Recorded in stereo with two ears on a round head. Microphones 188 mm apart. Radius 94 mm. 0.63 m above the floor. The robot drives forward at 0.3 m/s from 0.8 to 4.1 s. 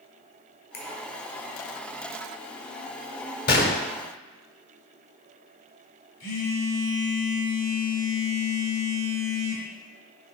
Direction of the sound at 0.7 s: 50° left (ahead or behind).